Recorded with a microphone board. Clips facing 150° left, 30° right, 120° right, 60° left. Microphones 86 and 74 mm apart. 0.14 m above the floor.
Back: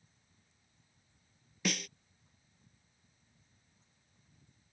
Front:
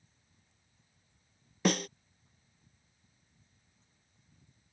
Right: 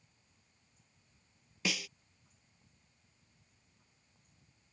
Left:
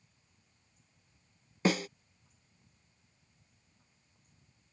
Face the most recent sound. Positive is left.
turn(degrees=15)